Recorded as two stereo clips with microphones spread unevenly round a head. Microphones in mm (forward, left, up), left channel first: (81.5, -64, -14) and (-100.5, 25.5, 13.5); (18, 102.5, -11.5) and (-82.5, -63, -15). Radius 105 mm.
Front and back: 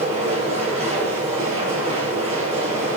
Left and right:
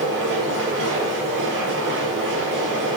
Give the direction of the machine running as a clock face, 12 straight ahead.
5 o'clock.